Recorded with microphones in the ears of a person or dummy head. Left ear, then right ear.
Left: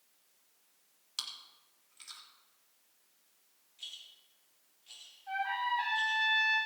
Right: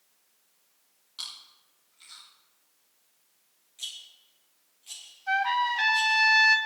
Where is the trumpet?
70° right (ahead or behind), 2.5 m.